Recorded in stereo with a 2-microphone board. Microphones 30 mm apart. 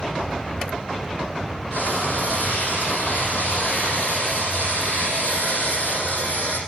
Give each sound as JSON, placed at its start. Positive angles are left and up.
{"t": 1.7, "sound": "frying", "side_deg": 80, "distance_m": 5.5}